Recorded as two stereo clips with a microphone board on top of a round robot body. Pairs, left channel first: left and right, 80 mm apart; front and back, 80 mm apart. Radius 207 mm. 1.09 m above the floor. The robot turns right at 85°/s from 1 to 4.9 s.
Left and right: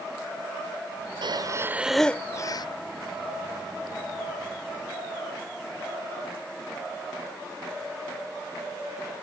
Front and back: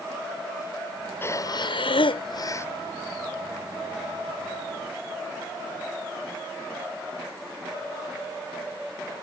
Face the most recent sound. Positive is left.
turn(degrees=-110)